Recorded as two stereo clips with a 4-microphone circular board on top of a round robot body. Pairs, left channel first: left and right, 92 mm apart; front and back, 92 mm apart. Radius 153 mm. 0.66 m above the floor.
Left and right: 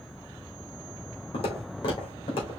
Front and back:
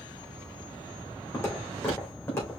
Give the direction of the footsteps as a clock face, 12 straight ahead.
10 o'clock.